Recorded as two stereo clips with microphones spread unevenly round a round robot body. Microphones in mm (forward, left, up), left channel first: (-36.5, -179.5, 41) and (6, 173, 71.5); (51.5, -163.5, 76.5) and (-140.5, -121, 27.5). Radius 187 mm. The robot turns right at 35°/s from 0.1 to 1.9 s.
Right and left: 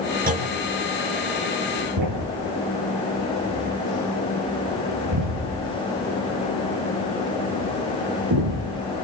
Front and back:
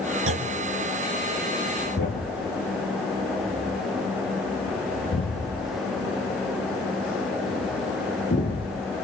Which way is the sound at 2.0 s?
45° left.